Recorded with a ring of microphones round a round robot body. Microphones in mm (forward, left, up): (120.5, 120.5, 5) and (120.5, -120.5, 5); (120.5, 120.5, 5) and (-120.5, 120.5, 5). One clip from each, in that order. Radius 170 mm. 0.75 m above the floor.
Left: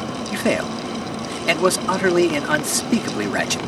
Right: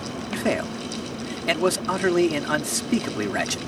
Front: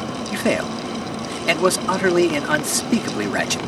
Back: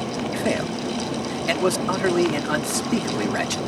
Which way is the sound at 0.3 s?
40° left.